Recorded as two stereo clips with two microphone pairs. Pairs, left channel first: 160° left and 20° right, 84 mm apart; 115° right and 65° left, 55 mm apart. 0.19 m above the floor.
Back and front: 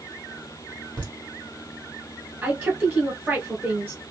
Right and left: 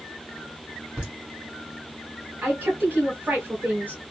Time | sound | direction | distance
1.0 | laughter | 5° left | 1.6 m
2.4 | a woman speaking | 40° left | 1.8 m